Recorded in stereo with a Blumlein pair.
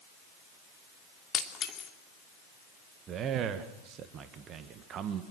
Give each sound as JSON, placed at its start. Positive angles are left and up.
{"t": 1.3, "sound": "breaking glass", "azimuth_deg": 25, "distance_m": 3.0}
{"t": 3.1, "sound": "a man speaking", "azimuth_deg": -30, "distance_m": 1.8}